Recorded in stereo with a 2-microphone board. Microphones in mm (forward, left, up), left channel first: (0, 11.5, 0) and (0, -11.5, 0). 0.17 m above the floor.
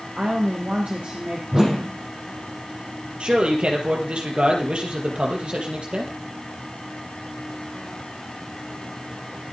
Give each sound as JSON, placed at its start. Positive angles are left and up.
{"t": 0.2, "sound": "a woman speaking", "side_deg": -65, "distance_m": 2.5}
{"t": 1.5, "sound": "a whoosh", "side_deg": -25, "distance_m": 3.5}
{"t": 3.2, "sound": "a man speaking", "side_deg": -50, "distance_m": 4.5}